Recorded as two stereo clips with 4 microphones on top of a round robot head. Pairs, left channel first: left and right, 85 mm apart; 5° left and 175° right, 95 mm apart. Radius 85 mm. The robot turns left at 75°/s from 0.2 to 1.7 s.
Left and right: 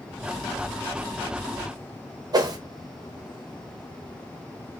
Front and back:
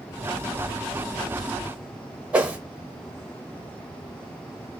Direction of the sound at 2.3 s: 100° right.